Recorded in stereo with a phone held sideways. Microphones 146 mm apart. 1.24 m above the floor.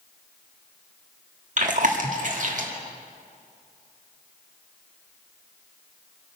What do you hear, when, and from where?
1.6 s chewing: 60° right (ahead or behind), 1.7 m